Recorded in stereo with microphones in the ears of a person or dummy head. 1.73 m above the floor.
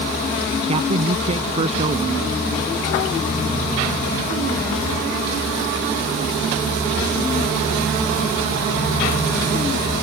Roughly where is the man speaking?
Right.